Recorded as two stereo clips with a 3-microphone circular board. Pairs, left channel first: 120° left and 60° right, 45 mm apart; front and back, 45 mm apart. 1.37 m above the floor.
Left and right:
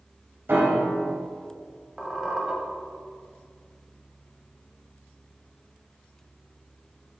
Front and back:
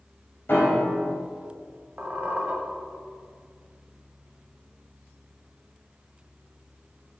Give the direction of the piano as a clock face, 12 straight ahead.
1 o'clock.